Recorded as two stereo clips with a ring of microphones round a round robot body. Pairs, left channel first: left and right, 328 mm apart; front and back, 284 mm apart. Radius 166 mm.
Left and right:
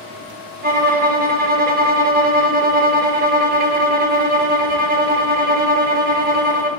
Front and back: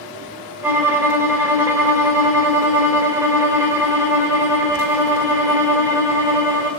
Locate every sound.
0.6 s a violin: 105° right, 0.8 m